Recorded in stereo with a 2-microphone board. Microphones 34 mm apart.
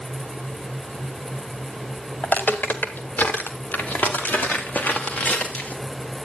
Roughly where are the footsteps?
Left.